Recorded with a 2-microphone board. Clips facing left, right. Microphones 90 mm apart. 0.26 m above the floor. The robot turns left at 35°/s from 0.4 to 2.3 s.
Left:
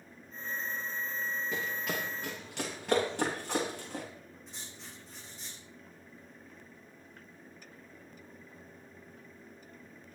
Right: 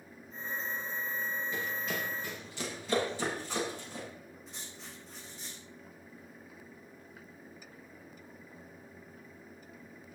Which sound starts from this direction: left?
Running footsteps, at 1.5 s.